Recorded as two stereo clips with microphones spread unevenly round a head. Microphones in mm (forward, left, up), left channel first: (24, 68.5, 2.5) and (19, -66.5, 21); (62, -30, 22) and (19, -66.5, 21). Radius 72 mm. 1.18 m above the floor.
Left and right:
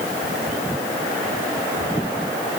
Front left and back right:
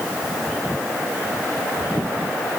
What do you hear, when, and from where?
Only background noise.